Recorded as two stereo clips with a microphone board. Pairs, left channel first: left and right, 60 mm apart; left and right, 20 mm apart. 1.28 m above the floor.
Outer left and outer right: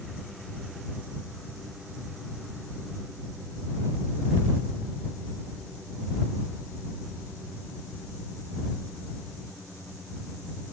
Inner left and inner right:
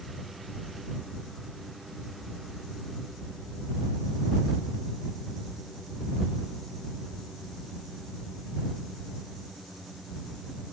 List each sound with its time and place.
Only background noise.